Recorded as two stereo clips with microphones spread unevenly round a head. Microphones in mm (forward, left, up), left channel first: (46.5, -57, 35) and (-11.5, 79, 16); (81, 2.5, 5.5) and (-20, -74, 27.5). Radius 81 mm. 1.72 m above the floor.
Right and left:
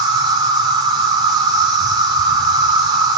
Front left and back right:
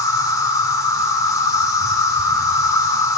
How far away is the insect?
About 1.4 m.